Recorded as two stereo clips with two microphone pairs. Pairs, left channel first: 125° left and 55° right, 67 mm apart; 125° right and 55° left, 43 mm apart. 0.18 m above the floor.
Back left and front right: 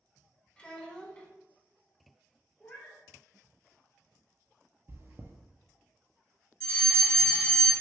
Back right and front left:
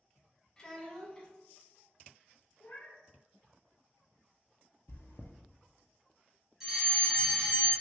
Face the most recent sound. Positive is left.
turn(degrees=105)